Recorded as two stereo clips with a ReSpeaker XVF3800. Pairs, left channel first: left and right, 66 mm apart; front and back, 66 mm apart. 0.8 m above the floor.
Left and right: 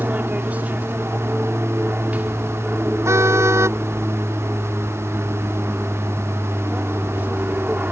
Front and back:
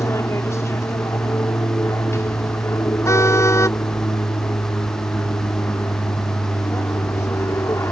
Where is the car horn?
45° right.